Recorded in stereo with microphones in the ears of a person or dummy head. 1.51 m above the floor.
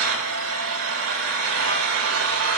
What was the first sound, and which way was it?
An engine running, 80° right.